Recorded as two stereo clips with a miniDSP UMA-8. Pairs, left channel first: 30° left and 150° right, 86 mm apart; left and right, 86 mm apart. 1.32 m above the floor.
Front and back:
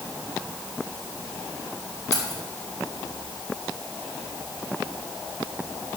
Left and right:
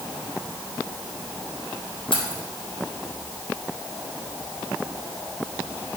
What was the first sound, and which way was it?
Keys jangling, 90° left.